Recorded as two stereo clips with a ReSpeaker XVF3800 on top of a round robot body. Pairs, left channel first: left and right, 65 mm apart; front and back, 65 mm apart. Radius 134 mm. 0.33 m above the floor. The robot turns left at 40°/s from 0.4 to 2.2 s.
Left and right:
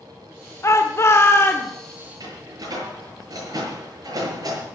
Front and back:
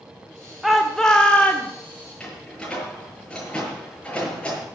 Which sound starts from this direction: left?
A shout, at 0.6 s.